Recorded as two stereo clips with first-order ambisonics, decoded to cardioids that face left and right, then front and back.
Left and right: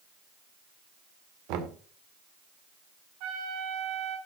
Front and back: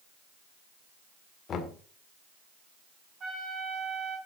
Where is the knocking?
65° right, 1.8 m.